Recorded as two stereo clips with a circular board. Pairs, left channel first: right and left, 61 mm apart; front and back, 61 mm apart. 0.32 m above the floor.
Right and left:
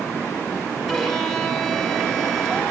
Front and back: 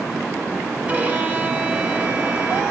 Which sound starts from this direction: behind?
A violin, at 0.9 s.